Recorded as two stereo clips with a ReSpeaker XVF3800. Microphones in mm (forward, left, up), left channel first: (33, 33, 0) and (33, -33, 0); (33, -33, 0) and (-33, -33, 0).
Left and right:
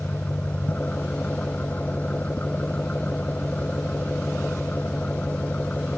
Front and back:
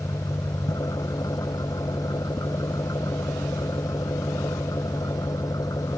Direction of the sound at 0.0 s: 20° left.